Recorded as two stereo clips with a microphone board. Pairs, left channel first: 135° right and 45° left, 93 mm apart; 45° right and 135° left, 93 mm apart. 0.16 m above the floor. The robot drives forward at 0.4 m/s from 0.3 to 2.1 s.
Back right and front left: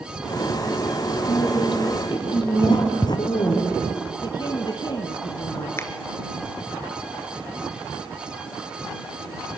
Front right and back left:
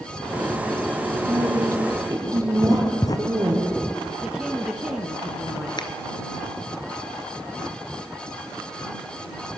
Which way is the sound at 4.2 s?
140° right.